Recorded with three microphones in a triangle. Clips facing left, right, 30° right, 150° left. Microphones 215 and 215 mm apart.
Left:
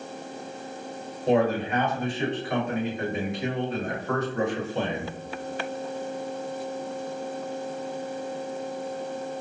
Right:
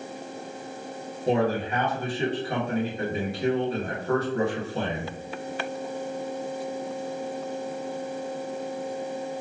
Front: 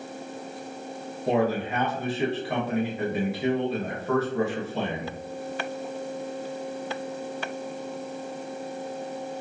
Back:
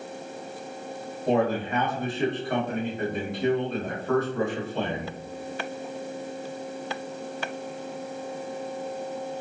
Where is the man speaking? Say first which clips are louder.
Left 2 dB, even; 110° right, 1.4 m.